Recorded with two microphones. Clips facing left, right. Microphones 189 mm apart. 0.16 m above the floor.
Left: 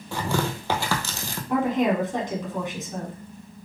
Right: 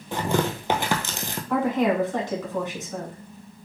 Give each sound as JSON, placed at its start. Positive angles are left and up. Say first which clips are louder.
{"t": 0.1, "sound": "tearing paper", "louder": "right 2 dB", "side_deg": -20, "distance_m": 0.7}
{"t": 1.5, "sound": "a woman speaking", "louder": "even", "side_deg": 20, "distance_m": 1.6}